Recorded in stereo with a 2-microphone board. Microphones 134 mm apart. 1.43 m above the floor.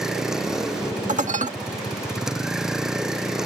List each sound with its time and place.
0.0 s a vehicle: 5° right (ahead or behind)
1.1 s dishes clattering: 65° right (ahead or behind)